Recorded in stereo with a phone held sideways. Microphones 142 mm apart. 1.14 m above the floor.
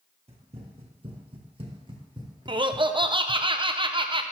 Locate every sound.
0.3 s running footsteps: 45° right (ahead or behind), 1.7 m; by 3.4 s 15° right (ahead or behind), 1.6 m
2.5 s laughter: 35° right (ahead or behind), 0.6 m